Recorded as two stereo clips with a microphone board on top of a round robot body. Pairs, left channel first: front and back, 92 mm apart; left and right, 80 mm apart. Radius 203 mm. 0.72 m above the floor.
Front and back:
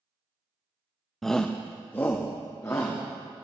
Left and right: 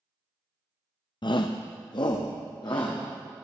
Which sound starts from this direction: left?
A shout, at 1.2 s.